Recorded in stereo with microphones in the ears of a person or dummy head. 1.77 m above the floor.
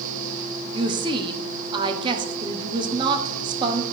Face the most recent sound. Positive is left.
turn(degrees=-25)  # may be behind; listen again after turning